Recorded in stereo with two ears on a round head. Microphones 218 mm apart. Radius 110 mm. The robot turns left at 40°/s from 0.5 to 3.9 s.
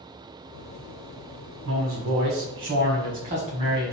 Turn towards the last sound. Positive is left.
turn(degrees=-165)